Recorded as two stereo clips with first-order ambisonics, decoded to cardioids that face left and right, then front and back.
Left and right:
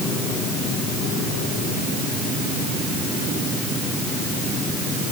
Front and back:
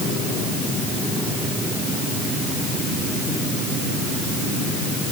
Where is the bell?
No bell in this recording.